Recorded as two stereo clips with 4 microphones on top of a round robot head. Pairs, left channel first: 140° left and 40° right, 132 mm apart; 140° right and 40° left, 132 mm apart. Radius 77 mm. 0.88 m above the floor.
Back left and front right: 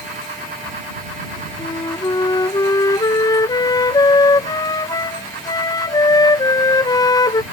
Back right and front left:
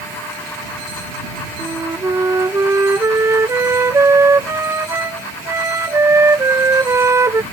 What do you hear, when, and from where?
1.6 s a flute: 100° left